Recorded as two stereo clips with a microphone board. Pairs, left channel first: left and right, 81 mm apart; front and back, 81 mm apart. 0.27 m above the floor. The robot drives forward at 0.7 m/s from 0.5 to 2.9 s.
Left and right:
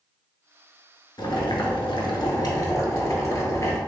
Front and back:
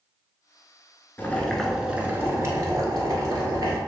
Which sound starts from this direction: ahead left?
Boiling, at 1.2 s.